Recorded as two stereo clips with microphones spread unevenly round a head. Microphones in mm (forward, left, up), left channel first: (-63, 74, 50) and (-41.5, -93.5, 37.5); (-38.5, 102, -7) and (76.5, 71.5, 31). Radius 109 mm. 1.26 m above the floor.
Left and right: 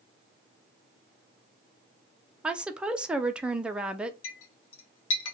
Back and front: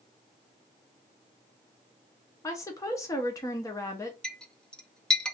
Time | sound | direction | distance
2.4 | a woman speaking | 160° right | 0.6 m
4.2 | a clink | 75° left | 0.6 m